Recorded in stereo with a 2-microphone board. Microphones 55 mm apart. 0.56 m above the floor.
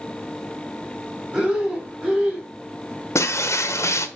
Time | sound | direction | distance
1.3 | breathing | 15° right (ahead or behind) | 3 m
3.1 | breaking glass | 65° left (ahead or behind) | 1.0 m